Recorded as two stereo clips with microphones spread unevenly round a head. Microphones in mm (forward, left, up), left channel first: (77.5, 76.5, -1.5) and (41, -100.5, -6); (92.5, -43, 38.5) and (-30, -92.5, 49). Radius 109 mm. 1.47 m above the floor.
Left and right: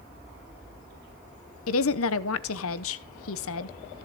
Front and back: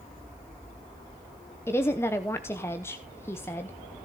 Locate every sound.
1.7 s a woman speaking: 100° left, 0.7 m